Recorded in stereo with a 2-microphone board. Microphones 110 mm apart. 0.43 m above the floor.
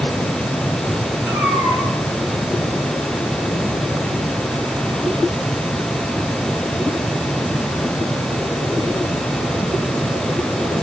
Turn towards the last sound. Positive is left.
turn(degrees=-25)  # may be behind; listen again after turning